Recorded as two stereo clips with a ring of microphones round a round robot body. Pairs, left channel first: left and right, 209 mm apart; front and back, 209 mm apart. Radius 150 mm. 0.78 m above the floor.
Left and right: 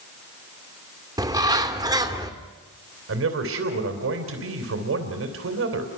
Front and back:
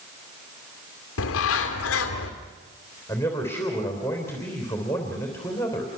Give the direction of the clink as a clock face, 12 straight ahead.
I don't hear a clink.